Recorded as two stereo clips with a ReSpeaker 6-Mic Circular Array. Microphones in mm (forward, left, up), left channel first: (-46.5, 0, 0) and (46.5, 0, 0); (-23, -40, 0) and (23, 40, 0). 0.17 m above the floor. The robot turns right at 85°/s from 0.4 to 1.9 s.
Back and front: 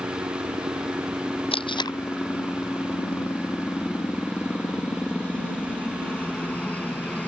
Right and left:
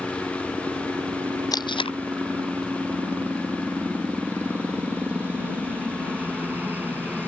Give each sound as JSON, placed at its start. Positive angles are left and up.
{"t": 0.0, "sound": "a helicopter", "azimuth_deg": -10}
{"t": 1.5, "sound": "tape being pulled", "azimuth_deg": -170}